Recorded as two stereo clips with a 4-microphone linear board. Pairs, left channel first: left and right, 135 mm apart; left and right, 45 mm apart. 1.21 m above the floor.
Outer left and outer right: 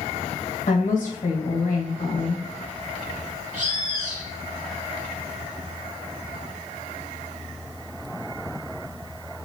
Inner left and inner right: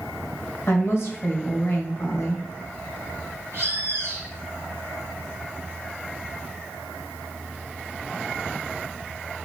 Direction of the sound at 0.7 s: 60° left (ahead or behind).